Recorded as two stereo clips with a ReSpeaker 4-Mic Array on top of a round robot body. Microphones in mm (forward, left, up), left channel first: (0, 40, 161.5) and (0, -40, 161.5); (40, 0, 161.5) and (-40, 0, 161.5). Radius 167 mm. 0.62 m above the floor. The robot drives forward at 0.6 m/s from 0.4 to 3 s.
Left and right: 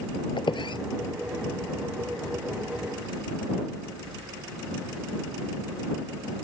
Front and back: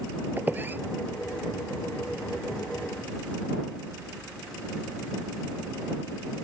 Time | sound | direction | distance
0.4 | a squeak | 110° left | ?